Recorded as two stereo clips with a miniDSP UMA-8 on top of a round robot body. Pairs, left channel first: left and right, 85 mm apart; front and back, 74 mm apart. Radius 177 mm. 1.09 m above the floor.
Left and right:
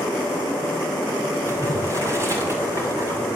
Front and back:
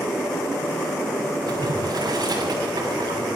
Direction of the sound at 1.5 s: 145° right.